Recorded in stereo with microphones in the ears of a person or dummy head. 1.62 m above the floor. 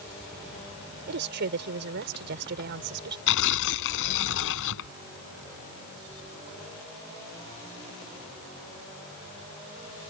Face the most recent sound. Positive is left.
turn(degrees=70)  # may be behind; listen again after turning